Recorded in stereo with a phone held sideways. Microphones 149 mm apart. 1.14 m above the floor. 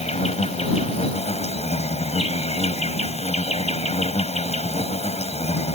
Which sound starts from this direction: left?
An insect, at 0.0 s.